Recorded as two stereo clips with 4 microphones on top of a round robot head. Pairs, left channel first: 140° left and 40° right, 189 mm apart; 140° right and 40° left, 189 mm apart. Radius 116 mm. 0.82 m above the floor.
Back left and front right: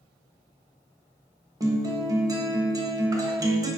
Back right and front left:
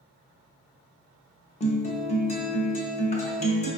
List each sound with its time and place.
1.6 s a guitar: 105° right, 1.0 m